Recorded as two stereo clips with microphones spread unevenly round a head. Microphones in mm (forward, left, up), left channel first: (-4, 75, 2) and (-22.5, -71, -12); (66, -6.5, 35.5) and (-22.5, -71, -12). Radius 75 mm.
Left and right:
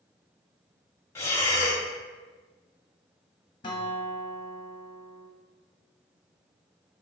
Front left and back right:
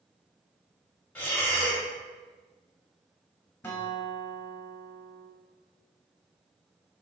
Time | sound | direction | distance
1.1 | breathing | 25° left | 1.4 m
3.6 | a guitar | 60° left | 1.0 m